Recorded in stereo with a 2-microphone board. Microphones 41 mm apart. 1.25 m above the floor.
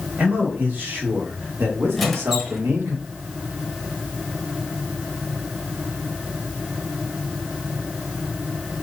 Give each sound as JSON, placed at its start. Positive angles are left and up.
{"t": 0.2, "sound": "a man speaking", "side_deg": -45, "distance_m": 3.0}
{"t": 2.0, "sound": "a squeak", "side_deg": 0, "distance_m": 1.1}